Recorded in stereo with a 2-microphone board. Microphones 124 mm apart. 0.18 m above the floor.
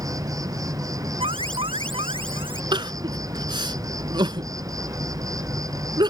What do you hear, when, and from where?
0.0 s an insect: 30° right (ahead or behind)
1.2 s an alarm: 50° right (ahead or behind)
2.7 s crying: 40° right (ahead or behind)